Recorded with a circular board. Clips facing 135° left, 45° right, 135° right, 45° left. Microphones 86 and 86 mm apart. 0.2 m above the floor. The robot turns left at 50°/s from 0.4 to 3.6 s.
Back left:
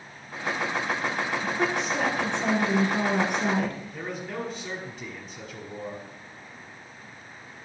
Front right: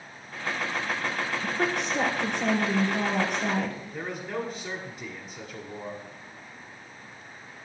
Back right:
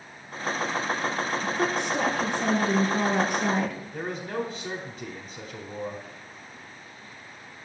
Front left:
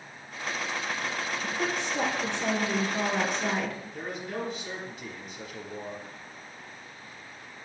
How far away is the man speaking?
About 1.6 m.